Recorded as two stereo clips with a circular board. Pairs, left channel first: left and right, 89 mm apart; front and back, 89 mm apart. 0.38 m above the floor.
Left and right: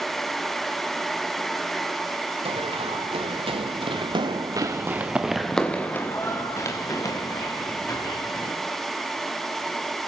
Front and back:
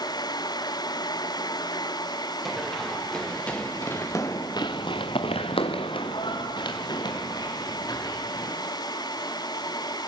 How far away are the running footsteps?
About 4 m.